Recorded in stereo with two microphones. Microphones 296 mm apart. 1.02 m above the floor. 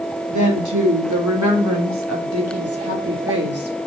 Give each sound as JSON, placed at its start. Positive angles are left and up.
{"t": 0.3, "sound": "a woman speaking", "side_deg": -80, "distance_m": 3.0}